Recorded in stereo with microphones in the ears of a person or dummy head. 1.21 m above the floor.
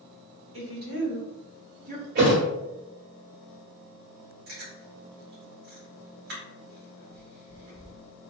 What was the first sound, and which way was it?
A woman speaking, 65° right (ahead or behind).